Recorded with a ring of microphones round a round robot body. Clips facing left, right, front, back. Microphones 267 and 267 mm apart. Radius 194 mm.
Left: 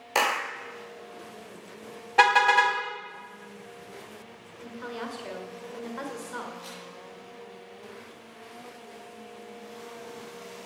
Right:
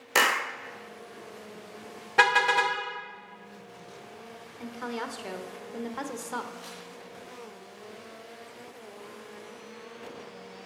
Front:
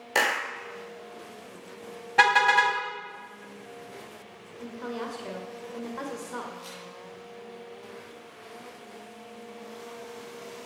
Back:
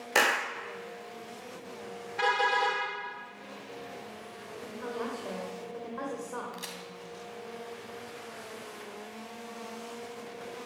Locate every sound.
0.1 s a clap: 100° right, 0.6 m
2.2 s a car horn: 25° right, 2 m
4.6 s a woman speaking: 65° right, 1.8 m
6.5 s a crack: 170° right, 3 m